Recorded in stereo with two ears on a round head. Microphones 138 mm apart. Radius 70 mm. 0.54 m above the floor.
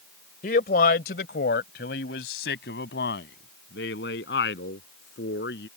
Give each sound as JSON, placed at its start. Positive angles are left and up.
{"t": 0.4, "sound": "a man speaking", "side_deg": 55}